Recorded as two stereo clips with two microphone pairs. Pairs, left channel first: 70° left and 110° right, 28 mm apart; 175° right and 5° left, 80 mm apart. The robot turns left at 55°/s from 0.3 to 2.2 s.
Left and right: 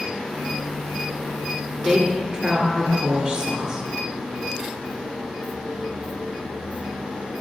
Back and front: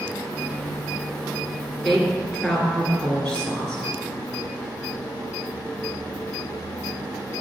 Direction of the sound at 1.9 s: 85° right.